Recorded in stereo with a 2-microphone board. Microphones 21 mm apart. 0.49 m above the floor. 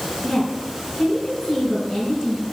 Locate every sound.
0.2 s a woman speaking: 35° left (ahead or behind), 5 m